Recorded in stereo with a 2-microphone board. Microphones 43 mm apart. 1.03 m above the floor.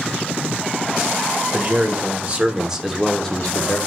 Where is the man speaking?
50° right (ahead or behind), 1.3 m; by 3.8 s 40° left (ahead or behind), 0.8 m.